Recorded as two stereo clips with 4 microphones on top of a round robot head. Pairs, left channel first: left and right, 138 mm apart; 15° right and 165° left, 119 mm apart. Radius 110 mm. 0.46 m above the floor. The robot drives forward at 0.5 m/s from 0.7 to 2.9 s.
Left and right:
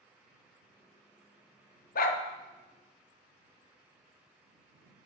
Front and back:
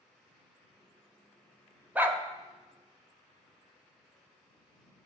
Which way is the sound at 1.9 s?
90° left.